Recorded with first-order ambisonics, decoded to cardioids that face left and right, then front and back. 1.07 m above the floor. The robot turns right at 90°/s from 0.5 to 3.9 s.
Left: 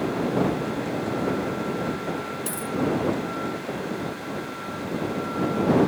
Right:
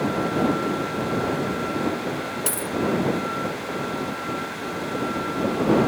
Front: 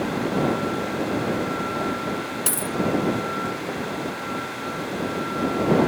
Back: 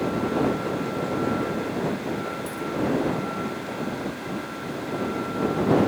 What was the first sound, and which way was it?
A dropped coin, 25° right.